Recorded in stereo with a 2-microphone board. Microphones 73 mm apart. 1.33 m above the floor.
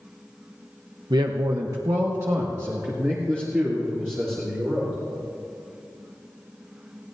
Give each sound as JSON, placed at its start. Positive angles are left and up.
{"t": 1.1, "sound": "a man speaking", "side_deg": -80, "distance_m": 0.7}